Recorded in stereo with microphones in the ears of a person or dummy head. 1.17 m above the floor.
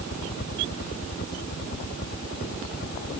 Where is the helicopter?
55° left (ahead or behind).